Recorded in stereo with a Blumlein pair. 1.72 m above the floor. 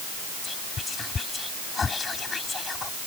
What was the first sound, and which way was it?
Whispering, 15° left.